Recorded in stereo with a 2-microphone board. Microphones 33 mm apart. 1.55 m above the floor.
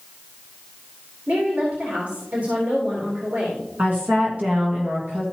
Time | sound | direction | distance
1.3 | a woman speaking | 70° right (ahead or behind) | 3 m
3.8 | a woman speaking | 50° right (ahead or behind) | 1.7 m